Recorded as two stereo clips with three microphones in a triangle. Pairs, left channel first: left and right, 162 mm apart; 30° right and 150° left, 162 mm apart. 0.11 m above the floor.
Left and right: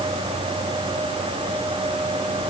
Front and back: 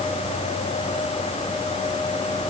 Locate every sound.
Only background noise.